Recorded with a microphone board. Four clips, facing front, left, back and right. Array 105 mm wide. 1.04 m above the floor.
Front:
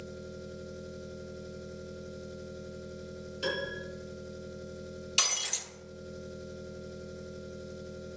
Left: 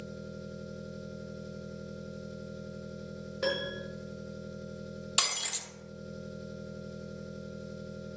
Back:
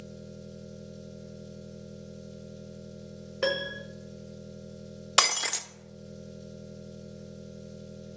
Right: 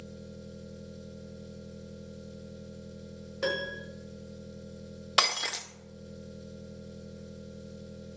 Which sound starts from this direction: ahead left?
An engine running, at 0.0 s.